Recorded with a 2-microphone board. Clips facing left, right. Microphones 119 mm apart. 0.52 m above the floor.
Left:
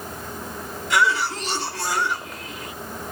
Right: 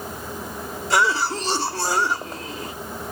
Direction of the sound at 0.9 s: 35° right (ahead or behind).